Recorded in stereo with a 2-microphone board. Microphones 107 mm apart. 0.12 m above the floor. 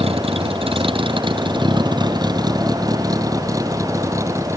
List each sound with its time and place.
0.0 s a vehicle: 65° right (ahead or behind); by 4.6 s 25° right (ahead or behind)